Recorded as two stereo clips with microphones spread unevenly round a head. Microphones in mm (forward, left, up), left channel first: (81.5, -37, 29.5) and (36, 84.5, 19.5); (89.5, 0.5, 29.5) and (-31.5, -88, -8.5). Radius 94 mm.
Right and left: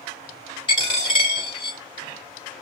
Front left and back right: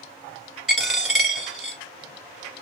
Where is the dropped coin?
40° right, 1.8 m.